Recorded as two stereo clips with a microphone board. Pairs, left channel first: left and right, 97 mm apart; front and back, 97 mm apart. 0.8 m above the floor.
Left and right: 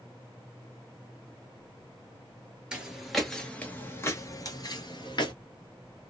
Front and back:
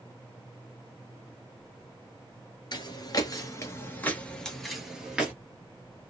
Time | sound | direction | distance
2.7 | footsteps | 15° right | 1.0 m